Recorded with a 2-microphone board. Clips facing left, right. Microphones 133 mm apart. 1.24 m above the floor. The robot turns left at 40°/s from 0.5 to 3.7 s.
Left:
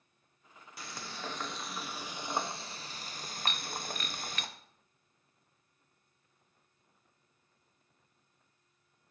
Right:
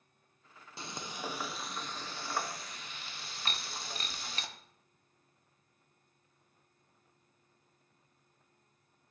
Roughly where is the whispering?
I don't hear whispering.